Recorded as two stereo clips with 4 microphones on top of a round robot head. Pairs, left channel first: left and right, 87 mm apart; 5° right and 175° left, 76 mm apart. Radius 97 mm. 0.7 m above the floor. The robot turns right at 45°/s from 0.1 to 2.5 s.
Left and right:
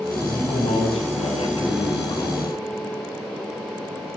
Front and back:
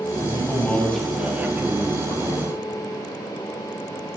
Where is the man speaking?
45° left, 5 m; by 2.6 s 150° left, 5 m.